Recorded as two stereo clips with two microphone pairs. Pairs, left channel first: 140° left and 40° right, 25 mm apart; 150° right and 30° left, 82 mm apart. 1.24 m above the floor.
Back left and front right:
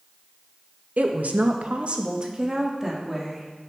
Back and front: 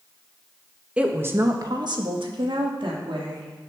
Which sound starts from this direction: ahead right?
A woman speaking, at 1.0 s.